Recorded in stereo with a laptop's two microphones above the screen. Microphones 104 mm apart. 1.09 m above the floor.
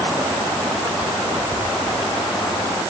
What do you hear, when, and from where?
Only background noise.